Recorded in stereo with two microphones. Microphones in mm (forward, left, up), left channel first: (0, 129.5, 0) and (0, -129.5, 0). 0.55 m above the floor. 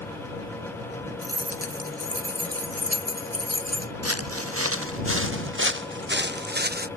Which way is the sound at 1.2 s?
65° right (ahead or behind).